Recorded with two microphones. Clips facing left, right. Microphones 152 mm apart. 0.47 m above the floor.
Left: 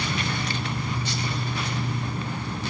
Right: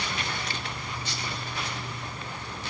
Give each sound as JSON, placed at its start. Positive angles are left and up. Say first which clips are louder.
{"t": 0.0, "sound": "an insect", "louder": "left 5 dB", "side_deg": 65}